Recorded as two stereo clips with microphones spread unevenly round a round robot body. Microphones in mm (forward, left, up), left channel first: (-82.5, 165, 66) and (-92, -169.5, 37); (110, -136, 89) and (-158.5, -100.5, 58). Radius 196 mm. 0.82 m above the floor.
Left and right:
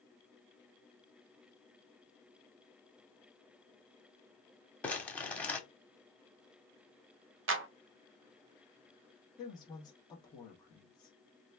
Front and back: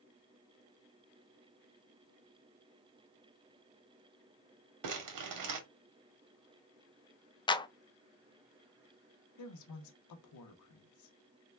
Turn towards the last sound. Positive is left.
turn(degrees=10)